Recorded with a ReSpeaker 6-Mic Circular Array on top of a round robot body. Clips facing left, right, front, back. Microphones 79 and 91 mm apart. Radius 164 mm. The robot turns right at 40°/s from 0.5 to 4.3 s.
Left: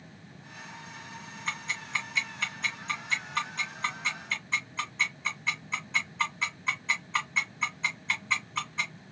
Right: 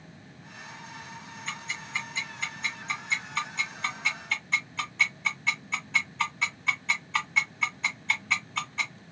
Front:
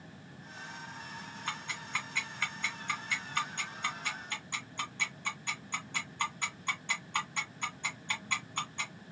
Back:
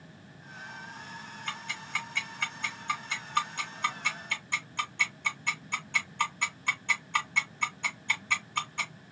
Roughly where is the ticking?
Ahead left.